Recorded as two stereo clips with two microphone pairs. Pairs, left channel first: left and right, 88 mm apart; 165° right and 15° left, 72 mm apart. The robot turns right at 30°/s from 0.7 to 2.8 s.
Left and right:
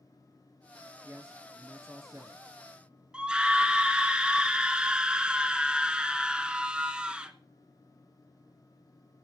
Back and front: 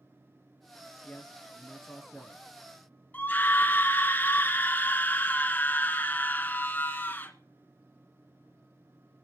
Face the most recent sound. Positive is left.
turn(degrees=-150)